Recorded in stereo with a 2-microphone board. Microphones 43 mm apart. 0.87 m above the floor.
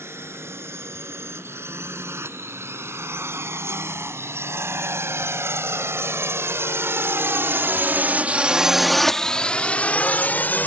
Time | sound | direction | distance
0.0 | a drone | 75° right (ahead or behind) | ?